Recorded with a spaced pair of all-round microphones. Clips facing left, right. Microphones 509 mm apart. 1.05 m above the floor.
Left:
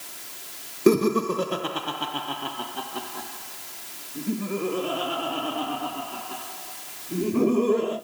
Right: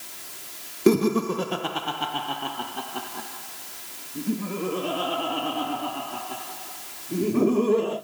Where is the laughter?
5° right (ahead or behind), 0.5 m; by 8.0 s centre (ahead or behind), 3.5 m.